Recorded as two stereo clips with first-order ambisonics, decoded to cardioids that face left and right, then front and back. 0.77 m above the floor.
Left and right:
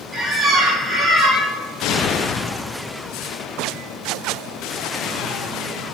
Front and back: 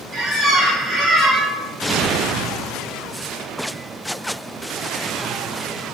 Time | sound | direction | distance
0.1 | a squeak | 165° right | 0.8 m